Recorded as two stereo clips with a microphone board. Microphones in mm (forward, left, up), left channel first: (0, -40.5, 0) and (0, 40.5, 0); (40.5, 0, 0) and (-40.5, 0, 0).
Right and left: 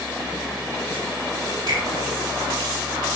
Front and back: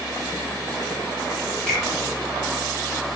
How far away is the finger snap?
About 4.5 m.